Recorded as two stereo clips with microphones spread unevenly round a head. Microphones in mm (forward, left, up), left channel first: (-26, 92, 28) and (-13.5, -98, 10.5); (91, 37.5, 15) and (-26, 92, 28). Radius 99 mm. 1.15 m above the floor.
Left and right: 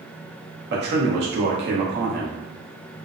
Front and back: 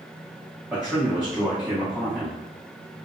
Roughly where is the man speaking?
Behind right.